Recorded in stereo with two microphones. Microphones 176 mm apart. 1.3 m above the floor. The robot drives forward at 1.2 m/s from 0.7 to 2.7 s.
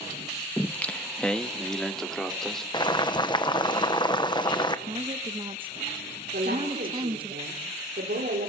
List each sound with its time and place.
0.6 s singing: 10° left (ahead or behind), 0.7 m; by 2.6 s centre (ahead or behind), 3 m
2.7 s boiling: 25° left (ahead or behind), 1.1 m
4.9 s a woman speaking: 30° right (ahead or behind), 1.2 m
6.3 s a woman speaking: 65° right (ahead or behind), 4.5 m